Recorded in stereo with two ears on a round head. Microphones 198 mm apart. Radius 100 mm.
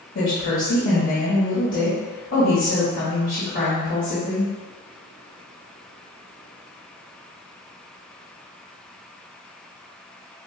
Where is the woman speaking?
55° left (ahead or behind), 1.6 m.